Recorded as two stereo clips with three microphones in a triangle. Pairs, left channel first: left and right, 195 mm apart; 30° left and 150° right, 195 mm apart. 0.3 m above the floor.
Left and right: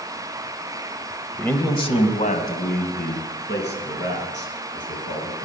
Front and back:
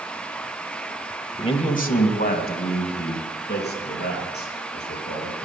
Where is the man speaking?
10° left, 1.1 m; by 5.5 s 65° left, 5.5 m.